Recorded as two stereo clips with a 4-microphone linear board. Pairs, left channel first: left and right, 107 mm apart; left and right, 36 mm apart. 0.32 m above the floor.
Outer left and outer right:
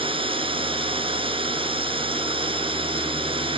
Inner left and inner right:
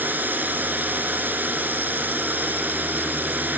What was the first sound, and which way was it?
A drone, 55° right (ahead or behind).